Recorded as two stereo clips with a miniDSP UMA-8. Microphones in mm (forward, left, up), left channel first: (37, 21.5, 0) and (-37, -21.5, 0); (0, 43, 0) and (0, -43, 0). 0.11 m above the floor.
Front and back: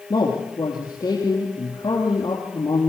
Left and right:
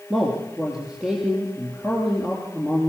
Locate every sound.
0.1 s a man speaking: 10° right, 3 m